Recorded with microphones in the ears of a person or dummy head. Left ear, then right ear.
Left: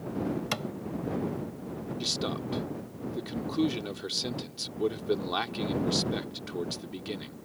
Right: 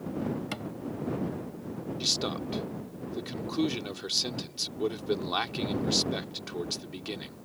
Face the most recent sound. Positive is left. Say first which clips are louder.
# right 3 dB
turn(degrees=-15)  # may be behind; listen again after turning